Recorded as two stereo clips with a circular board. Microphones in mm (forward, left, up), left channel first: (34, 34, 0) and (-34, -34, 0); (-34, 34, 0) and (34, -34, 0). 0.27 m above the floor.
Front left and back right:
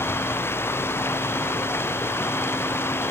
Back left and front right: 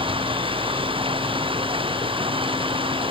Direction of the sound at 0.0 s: 20° right.